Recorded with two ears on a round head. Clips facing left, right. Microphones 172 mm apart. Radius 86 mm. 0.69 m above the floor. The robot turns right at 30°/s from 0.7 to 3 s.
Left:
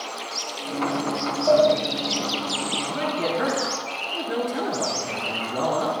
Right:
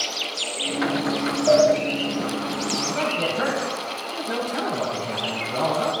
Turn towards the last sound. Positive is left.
turn(degrees=-60)  # may be behind; listen again after turning